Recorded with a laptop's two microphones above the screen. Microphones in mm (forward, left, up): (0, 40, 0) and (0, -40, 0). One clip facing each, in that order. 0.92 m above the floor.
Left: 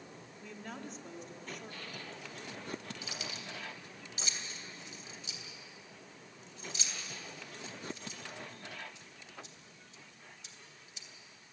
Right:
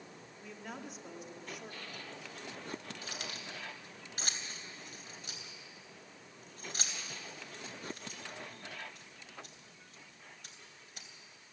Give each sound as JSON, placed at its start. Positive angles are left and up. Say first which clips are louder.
{"t": 0.4, "sound": "a woman speaking", "louder": "even", "side_deg": -5, "distance_m": 2.0}
{"t": 3.0, "sound": "keys jangling", "louder": "even", "side_deg": -55, "distance_m": 3.0}